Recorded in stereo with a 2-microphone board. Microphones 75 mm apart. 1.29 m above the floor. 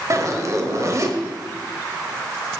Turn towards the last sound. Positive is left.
turn(degrees=-45)  # may be behind; listen again after turning